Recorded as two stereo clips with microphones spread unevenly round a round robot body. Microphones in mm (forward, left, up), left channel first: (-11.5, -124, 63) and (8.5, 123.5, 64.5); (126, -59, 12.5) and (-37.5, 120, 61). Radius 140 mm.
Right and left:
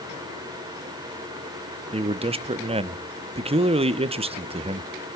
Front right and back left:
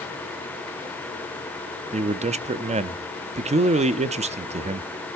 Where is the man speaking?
80° left, 0.7 m.